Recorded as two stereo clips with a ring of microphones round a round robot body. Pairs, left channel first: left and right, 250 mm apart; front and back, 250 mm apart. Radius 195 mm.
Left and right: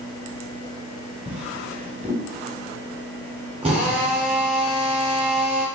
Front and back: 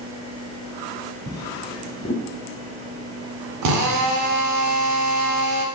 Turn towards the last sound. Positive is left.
turn(degrees=-160)